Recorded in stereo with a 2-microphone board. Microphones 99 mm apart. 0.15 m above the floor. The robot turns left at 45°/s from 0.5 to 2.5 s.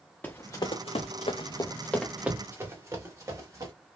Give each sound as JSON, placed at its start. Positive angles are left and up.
{"t": 0.2, "sound": "running footsteps", "side_deg": 20, "distance_m": 0.6}